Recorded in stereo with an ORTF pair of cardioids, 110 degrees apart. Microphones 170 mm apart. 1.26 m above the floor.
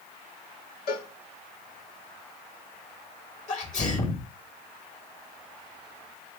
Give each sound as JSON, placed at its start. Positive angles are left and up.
{"t": 0.9, "sound": "a cowbell", "azimuth_deg": 70, "distance_m": 1.5}
{"t": 3.5, "sound": "a sneeze", "azimuth_deg": 45, "distance_m": 2.5}